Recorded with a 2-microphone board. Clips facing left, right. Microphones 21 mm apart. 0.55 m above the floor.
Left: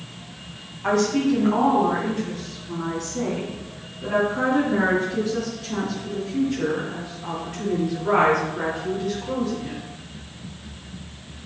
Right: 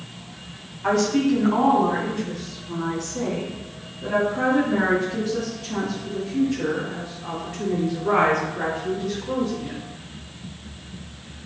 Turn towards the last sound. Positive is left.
turn(degrees=10)  # may be behind; listen again after turning